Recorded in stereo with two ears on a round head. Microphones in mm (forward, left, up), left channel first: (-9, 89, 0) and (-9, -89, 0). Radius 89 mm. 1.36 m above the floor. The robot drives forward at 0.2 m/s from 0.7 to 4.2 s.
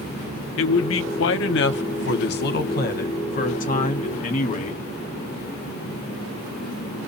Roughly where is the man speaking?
Left.